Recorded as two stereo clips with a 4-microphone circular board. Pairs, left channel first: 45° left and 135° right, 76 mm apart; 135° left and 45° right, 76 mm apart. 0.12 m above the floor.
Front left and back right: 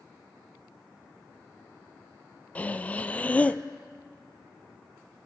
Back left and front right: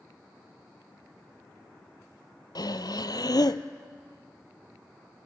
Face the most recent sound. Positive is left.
turn(degrees=115)